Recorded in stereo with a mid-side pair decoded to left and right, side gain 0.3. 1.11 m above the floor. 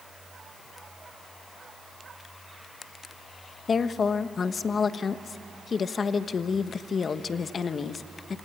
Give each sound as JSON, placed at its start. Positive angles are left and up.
{"t": 3.7, "sound": "a woman speaking", "azimuth_deg": 65, "distance_m": 1.2}